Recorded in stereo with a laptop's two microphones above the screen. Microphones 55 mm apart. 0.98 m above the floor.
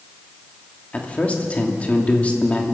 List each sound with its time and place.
0.9 s a man speaking: 25° left (ahead or behind), 2 m